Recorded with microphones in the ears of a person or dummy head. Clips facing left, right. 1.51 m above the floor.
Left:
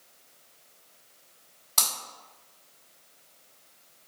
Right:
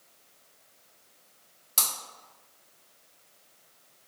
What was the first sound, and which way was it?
Breaking glass, 15° right (ahead or behind).